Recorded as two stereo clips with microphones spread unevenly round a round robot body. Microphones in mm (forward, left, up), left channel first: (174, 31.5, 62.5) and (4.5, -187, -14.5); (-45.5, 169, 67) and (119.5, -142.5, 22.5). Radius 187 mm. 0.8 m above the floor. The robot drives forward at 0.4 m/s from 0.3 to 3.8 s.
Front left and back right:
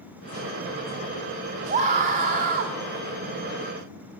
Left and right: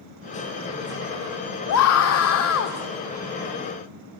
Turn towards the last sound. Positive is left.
turn(degrees=170)